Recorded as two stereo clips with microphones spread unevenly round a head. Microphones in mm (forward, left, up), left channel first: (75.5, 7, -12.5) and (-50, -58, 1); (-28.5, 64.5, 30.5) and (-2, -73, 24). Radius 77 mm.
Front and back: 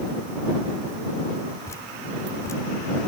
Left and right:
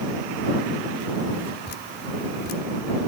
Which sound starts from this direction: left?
Dripping, at 1.7 s.